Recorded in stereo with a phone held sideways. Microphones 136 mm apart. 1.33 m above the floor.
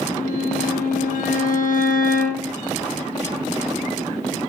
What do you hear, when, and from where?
0.1 s a violin: 75° left (ahead or behind), 4 m